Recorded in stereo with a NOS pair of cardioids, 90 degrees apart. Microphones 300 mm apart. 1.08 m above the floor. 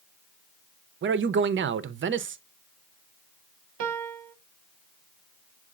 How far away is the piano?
About 0.8 m.